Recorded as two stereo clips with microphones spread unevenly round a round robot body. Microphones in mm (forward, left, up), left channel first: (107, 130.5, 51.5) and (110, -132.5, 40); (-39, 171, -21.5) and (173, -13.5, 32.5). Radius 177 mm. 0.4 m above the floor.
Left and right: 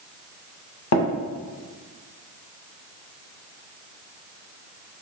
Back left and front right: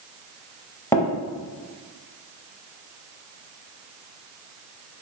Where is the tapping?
60° left, 0.7 m.